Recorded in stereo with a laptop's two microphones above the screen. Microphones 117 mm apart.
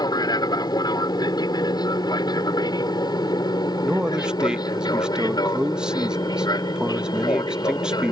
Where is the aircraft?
35° left (ahead or behind).